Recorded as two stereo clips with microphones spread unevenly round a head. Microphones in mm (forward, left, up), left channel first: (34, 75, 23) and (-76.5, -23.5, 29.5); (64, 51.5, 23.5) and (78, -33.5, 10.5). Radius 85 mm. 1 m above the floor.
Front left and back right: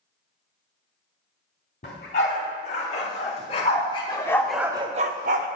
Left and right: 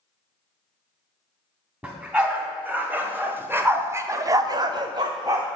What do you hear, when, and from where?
1.8 s a dog barking: 5° right, 3 m; by 5.5 s 155° right, 0.9 m